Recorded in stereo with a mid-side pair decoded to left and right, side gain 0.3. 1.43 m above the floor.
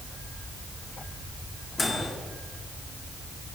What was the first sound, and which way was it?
A microwave, 40° left.